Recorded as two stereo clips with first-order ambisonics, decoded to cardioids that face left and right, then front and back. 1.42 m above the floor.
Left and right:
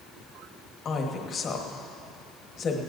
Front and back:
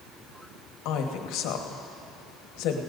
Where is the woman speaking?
25° left, 1.2 m.